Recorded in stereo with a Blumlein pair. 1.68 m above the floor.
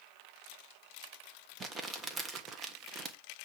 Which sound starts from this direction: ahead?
Crumpling, at 1.6 s.